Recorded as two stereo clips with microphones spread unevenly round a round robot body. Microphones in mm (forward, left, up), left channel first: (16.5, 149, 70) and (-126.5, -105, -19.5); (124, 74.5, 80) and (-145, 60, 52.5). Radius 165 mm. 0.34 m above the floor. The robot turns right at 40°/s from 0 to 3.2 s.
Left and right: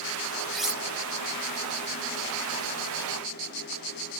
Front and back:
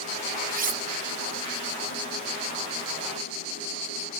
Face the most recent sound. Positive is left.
turn(degrees=-80)